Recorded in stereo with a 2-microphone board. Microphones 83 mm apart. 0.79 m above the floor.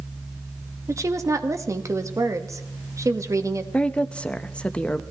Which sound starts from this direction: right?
A woman speaking, at 0.9 s.